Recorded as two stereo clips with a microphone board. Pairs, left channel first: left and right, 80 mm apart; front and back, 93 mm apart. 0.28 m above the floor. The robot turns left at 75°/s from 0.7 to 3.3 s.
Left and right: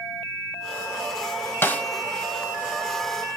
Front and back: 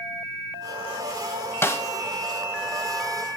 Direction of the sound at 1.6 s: 45° left.